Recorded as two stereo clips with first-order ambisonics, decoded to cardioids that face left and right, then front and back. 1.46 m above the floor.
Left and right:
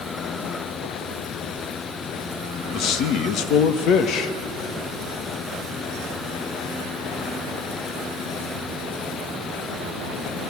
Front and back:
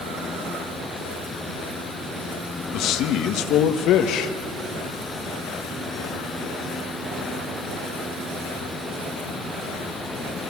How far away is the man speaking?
About 1.5 m.